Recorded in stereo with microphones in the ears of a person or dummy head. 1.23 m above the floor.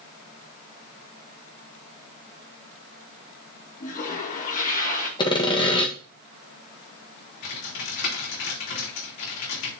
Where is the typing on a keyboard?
75° left (ahead or behind), 4 m.